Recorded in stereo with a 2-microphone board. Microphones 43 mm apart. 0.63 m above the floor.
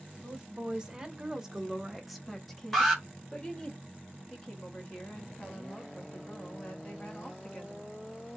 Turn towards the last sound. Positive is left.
turn(degrees=20)  # may be behind; listen again after turning